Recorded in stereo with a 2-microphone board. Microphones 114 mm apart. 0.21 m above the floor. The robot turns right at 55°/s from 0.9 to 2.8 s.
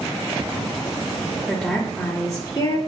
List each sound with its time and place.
1.5 s a woman speaking: straight ahead, 1.3 m; by 2.8 s 75° left, 1.3 m